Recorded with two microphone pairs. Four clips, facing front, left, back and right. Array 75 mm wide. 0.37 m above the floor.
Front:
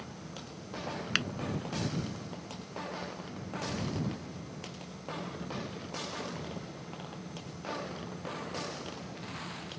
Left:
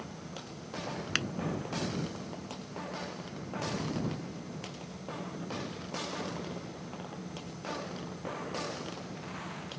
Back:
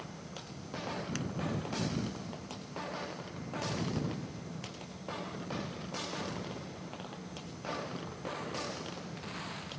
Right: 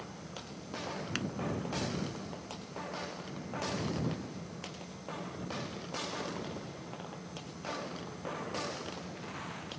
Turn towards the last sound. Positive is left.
turn(degrees=30)